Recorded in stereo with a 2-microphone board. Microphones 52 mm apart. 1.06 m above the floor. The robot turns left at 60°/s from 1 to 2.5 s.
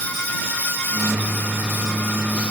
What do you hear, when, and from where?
Only background noise.